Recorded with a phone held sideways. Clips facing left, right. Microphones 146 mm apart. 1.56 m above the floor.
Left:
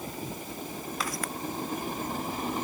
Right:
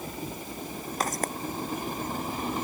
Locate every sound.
1.0 s footsteps: 50° right (ahead or behind)